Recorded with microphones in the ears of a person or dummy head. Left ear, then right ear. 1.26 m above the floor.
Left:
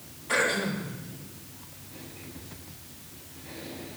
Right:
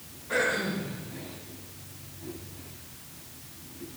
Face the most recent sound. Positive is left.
turn(degrees=55)  # may be behind; listen again after turning